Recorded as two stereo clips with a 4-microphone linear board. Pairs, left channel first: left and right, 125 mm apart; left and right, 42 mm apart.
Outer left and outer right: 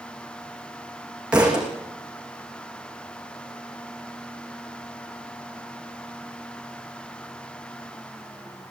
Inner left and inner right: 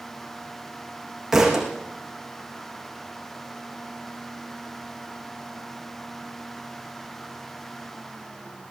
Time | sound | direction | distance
1.3 | a thud | 10° right (ahead or behind) | 7.5 m